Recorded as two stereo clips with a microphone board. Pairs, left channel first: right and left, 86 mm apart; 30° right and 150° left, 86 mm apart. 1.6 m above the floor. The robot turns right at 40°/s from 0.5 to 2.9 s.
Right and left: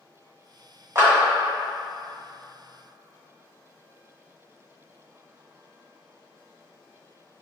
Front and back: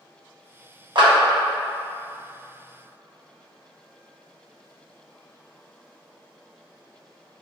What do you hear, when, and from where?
0.9 s a clap: 140° left, 1.2 m; by 1.1 s 145° left, 1.2 m